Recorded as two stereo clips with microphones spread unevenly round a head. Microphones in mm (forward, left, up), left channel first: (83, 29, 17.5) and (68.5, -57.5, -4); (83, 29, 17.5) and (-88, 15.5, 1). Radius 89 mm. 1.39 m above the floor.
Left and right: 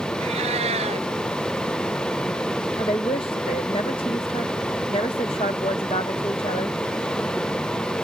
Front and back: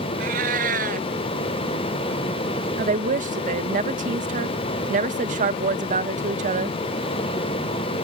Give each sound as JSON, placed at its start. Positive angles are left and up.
{"t": 0.2, "sound": "a cat meowing", "azimuth_deg": -125}
{"t": 2.8, "sound": "a woman speaking", "azimuth_deg": 140}